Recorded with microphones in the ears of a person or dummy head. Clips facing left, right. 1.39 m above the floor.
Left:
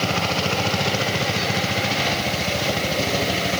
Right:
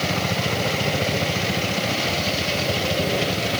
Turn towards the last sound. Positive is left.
No sound to turn to.